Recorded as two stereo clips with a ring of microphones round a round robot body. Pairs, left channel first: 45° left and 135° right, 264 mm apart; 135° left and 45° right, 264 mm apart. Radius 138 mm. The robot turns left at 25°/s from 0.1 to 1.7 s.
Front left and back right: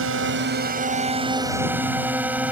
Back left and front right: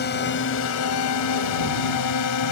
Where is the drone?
175° right; by 2.5 s 140° left.